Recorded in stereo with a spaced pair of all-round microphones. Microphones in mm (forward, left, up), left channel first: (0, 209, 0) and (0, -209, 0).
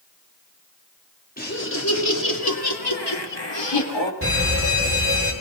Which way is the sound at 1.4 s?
20° left (ahead or behind).